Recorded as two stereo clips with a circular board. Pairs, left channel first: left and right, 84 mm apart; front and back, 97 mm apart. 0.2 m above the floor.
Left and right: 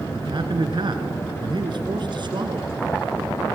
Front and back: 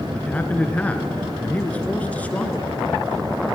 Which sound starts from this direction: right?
A man speaking, at 0.1 s.